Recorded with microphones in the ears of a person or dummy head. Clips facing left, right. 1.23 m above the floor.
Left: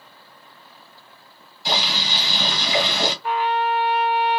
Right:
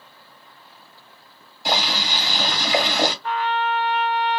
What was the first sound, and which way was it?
Boiling, 40° right (ahead or behind).